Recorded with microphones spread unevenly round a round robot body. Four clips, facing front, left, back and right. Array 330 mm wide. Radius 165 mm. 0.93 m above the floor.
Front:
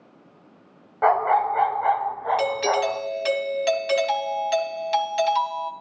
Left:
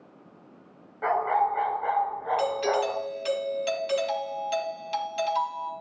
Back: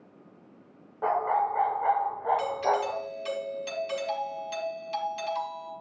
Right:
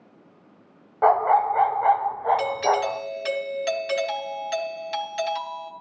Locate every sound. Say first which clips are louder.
1.0 s a dog barking: right 6 dB, front 7 dB; 45° right, 1.8 m; by 3.0 s 85° right, 2.5 m
2.4 s a doorbell: right 3 dB, front 5 dB; 5° right, 4 m